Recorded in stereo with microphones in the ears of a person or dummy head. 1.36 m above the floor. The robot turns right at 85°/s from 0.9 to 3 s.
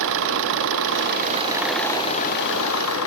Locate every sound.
0.0 s an engine running: 70° right; by 3.1 s 105° left